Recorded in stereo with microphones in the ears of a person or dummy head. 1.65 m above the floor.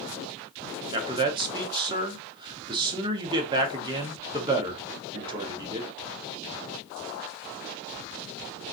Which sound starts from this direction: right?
A man speaking, at 0.9 s.